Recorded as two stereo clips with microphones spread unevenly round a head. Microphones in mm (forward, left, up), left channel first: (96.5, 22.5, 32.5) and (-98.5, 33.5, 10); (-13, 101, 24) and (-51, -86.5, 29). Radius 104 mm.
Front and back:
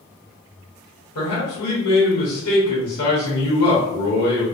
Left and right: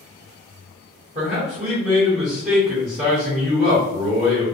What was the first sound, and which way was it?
A man speaking, 45° right.